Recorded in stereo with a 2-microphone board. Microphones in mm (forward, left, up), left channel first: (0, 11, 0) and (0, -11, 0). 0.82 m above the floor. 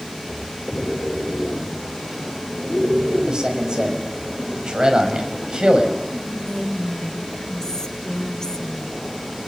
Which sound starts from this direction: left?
Whispering, at 6.1 s.